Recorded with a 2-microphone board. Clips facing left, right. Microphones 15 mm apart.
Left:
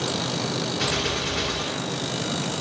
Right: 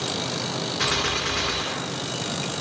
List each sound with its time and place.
0.8 s a gunshot: 40° right (ahead or behind), 1.8 m